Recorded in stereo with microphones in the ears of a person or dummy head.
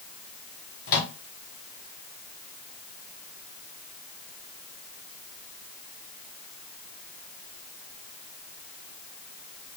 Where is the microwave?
55° left (ahead or behind), 0.7 m.